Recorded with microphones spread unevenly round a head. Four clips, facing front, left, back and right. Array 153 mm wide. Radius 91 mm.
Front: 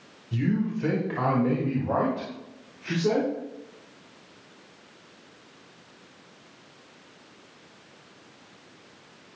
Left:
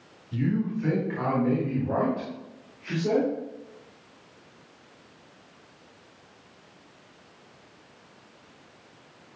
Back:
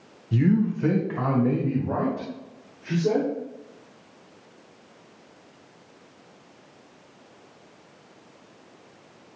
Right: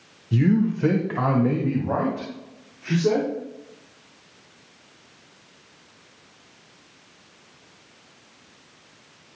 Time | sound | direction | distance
0.3 | a man speaking | 110° right | 1.2 m